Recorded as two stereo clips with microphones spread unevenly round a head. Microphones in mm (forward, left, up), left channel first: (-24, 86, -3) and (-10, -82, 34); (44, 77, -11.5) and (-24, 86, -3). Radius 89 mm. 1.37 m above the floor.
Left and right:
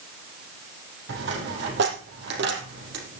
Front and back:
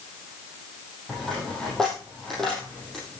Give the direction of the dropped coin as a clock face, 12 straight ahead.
3 o'clock.